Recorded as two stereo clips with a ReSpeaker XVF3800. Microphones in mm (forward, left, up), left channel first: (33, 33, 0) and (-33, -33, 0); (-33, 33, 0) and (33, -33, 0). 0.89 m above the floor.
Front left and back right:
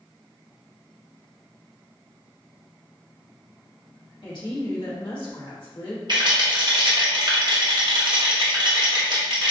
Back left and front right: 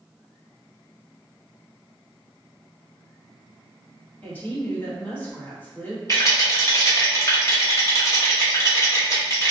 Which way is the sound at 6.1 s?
170° right.